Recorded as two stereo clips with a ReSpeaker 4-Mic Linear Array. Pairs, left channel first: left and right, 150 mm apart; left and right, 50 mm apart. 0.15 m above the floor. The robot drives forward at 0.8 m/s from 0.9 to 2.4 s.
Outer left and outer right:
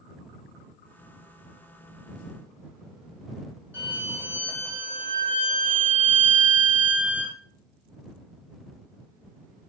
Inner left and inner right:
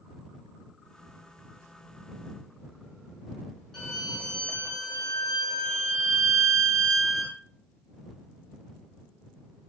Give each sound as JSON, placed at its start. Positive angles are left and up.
{"t": 3.7, "sound": "a violin", "side_deg": 10, "distance_m": 0.9}